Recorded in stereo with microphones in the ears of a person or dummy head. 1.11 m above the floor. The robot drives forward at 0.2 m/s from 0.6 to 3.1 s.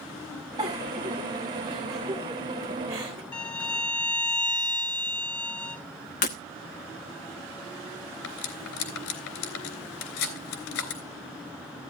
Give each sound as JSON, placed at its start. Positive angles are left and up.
{"t": 0.6, "sound": "a giggle", "side_deg": -20, "distance_m": 3.5}
{"t": 3.3, "sound": "a violin", "side_deg": 5, "distance_m": 1.0}
{"t": 6.2, "sound": "breaking glass", "side_deg": 40, "distance_m": 0.9}
{"t": 8.2, "sound": "cutlery clinking", "side_deg": 85, "distance_m": 3.0}